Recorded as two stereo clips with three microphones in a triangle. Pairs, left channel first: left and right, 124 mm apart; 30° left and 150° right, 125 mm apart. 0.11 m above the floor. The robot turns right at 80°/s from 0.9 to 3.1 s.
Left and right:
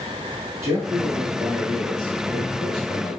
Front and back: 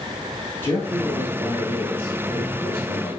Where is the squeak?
No squeak in this recording.